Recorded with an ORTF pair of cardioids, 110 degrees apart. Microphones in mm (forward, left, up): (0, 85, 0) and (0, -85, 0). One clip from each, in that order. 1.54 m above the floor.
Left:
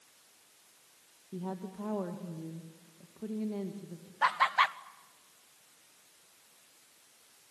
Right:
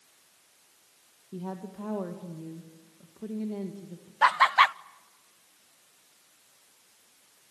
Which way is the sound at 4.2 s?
25° right.